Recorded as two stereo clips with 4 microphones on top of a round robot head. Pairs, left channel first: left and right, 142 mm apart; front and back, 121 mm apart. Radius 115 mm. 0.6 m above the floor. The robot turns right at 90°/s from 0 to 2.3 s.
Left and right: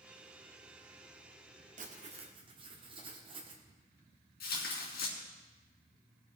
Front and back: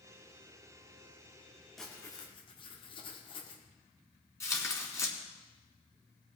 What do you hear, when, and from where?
1.8 s writing: 90° right, 1.6 m; by 3.6 s 40° right, 1.6 m
4.4 s tearing paper: 65° left, 3 m